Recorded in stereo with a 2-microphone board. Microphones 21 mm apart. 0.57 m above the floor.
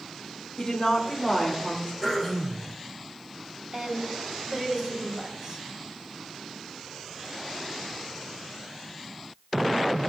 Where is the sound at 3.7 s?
40° right (ahead or behind), 3 m.